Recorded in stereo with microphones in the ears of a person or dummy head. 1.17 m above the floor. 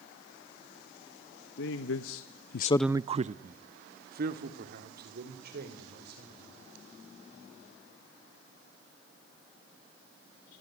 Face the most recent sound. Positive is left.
turn(degrees=-65)  # may be behind; listen again after turning